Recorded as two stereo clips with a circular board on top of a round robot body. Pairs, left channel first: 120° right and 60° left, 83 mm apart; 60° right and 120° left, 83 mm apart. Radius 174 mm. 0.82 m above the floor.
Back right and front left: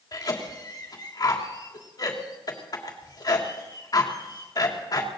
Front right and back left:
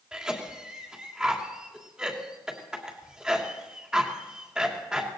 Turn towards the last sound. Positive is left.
turn(degrees=-160)